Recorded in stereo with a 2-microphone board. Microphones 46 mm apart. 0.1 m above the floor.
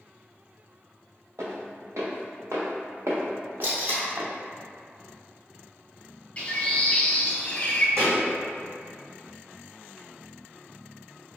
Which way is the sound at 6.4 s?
25° left (ahead or behind).